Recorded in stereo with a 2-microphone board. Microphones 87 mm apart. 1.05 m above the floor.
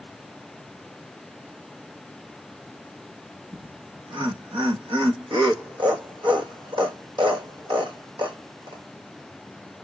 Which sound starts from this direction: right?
Laughter, at 3.5 s.